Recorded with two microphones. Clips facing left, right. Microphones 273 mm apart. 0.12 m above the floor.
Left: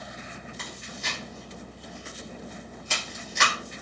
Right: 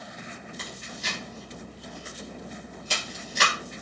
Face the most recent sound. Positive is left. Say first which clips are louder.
# even
turn(degrees=-40)  # may be behind; listen again after turning